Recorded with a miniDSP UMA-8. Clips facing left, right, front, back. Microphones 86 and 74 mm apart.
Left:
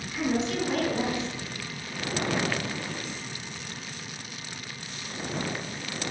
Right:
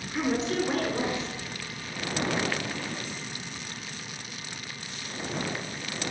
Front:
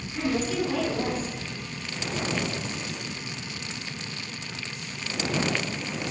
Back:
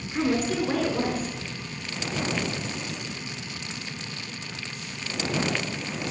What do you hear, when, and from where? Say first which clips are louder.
0.1 s a woman speaking: even, back 2 dB; 140° right, 4 m